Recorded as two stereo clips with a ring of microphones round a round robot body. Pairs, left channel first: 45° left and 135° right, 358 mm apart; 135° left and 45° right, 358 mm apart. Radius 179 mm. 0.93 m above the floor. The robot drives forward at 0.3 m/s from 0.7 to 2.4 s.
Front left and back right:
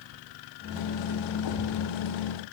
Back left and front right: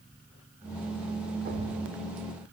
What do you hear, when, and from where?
1.4 s a thud: 20° left, 1.2 m